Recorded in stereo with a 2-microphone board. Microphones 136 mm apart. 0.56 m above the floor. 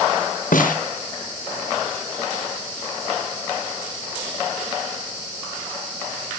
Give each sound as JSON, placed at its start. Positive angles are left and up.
{"t": 0.5, "sound": "a snare drum", "side_deg": 85, "distance_m": 1.1}